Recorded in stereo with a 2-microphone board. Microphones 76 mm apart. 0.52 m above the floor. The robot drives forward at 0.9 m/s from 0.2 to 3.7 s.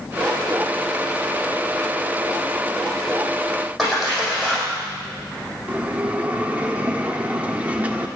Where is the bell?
15° right (ahead or behind), 1.0 m.